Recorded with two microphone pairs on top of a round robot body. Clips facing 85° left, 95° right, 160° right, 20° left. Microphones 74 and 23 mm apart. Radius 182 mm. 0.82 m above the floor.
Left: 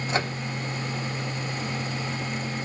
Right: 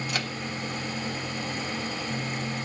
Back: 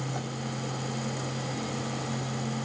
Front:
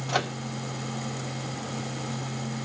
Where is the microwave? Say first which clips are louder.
Left 9 dB, front 7 dB; 20° left, 0.6 m.